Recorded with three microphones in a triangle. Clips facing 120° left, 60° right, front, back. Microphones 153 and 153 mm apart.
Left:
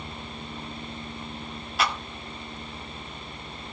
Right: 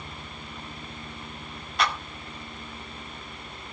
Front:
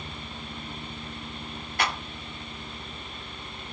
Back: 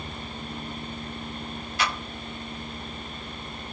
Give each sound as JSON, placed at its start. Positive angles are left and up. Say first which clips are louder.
{"t": 1.8, "sound": "a clap", "louder": "even, even", "azimuth_deg": 30, "distance_m": 2.0}